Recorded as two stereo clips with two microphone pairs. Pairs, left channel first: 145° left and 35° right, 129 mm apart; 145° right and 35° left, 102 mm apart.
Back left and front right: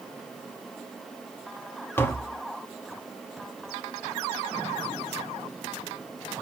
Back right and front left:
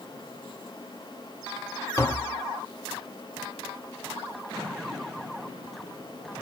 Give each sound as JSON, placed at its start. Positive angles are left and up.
{"t": 2.0, "sound": "tapping", "azimuth_deg": -155, "distance_m": 0.9}